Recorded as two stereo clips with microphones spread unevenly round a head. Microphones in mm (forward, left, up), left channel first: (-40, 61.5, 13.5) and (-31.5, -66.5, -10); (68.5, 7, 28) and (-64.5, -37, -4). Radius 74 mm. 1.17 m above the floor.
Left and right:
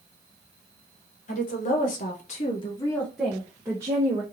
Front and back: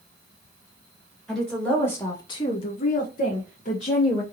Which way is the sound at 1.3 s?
110° left.